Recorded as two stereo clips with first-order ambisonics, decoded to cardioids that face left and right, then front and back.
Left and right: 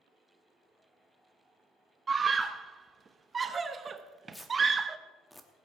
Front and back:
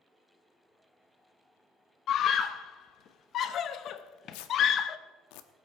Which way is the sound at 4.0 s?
Straight ahead.